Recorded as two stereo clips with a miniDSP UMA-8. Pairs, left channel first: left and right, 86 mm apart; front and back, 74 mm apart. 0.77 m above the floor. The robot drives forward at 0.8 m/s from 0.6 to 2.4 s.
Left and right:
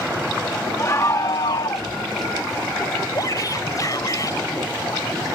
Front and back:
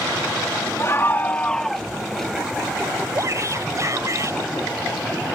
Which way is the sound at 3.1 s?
135° left.